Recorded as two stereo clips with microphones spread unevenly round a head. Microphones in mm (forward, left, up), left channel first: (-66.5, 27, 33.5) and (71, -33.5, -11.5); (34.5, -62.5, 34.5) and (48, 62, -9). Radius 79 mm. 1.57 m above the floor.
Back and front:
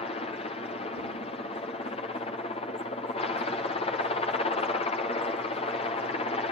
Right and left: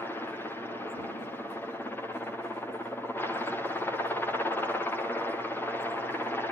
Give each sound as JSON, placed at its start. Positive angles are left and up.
{"t": 0.0, "sound": "a helicopter", "azimuth_deg": 165}